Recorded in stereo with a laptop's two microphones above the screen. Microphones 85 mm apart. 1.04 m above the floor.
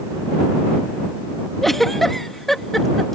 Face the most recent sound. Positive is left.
turn(degrees=5)  # may be behind; listen again after turning